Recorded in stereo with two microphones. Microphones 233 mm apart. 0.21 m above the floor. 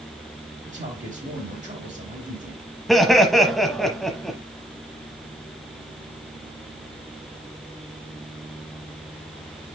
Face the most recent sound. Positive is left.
turn(degrees=0)  # may be behind; listen again after turning